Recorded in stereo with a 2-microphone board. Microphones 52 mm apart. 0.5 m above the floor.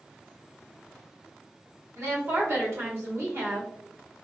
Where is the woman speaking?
55° right (ahead or behind), 1.4 m.